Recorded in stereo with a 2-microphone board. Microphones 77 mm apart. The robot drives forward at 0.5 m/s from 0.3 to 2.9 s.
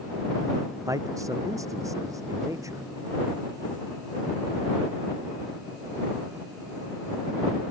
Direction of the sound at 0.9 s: 45° right (ahead or behind).